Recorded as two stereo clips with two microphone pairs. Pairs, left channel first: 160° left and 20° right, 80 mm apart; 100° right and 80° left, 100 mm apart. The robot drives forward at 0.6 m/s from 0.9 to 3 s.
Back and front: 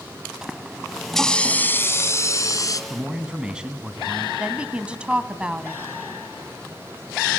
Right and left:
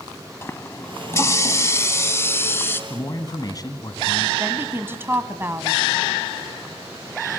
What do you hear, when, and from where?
0.4 s a running tap: 90° right, 0.7 m; by 2.8 s 165° right, 1.3 m
2.9 s a man speaking: 90° right, 1.8 m; by 4.3 s 95° right, 1.8 m
4.4 s a woman speaking: 40° left, 1.2 m